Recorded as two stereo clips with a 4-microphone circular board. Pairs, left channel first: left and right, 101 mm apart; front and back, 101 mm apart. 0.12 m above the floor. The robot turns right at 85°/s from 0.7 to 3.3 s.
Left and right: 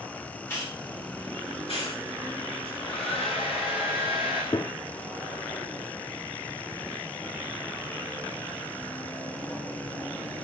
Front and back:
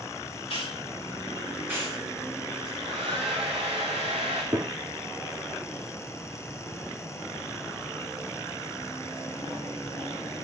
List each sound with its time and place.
0.5 s a hiss: 25° left, 8.5 m; by 2.0 s 135° left, 8.5 m
2.6 s a hair dryer: 140° left, 9.5 m; by 4.4 s 165° right, 9.5 m
4.5 s a gunshot: 140° left, 1.3 m